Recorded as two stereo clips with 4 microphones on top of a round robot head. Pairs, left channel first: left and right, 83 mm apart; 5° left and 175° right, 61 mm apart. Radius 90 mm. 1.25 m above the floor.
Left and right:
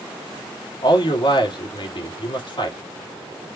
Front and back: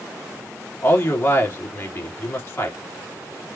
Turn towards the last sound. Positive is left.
turn(degrees=55)